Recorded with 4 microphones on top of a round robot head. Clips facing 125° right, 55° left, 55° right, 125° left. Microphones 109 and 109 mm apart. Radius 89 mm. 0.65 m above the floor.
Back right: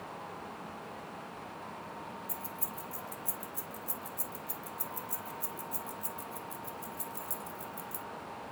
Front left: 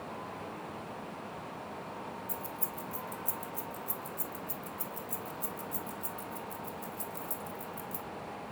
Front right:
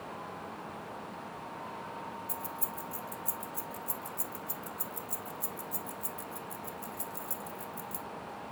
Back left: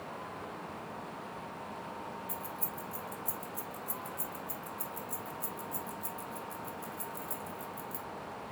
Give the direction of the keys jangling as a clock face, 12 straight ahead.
2 o'clock.